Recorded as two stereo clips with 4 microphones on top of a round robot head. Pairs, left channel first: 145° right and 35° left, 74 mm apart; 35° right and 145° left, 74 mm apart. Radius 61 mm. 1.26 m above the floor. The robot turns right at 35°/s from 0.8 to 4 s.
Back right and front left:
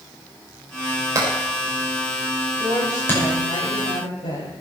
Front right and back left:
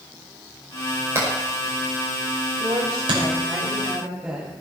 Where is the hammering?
85° left, 6 m; by 3.2 s 155° left, 6 m.